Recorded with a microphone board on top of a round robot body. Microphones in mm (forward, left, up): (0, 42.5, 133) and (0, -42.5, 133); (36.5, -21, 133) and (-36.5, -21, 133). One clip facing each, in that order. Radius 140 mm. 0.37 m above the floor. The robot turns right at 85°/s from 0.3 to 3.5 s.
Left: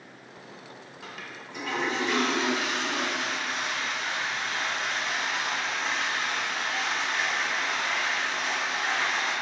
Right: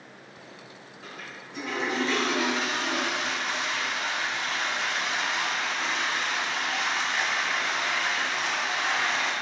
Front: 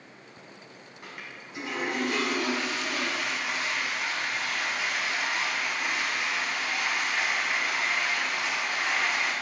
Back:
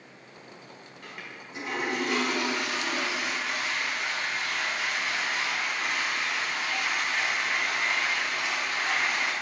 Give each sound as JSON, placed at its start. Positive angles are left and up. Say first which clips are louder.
{"t": 1.0, "sound": "a toilet flushing", "louder": "even, even", "azimuth_deg": 75, "distance_m": 1.5}